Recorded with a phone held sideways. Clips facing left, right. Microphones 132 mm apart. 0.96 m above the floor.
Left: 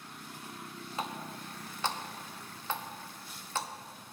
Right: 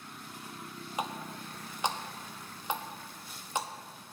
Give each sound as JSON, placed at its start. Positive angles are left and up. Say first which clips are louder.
{"t": 1.0, "sound": "a running tap", "louder": "right 2 dB", "side_deg": -15, "distance_m": 0.6}